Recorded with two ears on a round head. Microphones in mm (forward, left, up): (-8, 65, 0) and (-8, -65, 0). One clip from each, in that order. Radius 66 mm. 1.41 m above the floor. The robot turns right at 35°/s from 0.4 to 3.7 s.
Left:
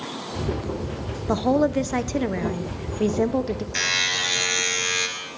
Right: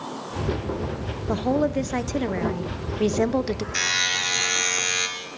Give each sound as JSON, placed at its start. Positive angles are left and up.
{"t": 1.3, "sound": "a woman speaking", "azimuth_deg": 155, "distance_m": 0.9}
{"t": 3.8, "sound": "a buzzer", "side_deg": -10, "distance_m": 3.5}